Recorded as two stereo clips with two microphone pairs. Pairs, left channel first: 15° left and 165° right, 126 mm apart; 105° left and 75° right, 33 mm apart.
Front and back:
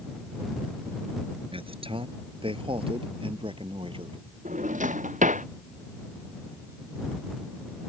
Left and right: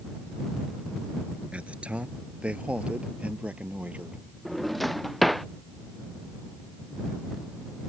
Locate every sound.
1.5 s a man speaking: 120° right; by 4.2 s 115° right
4.5 s a drawer: 165° right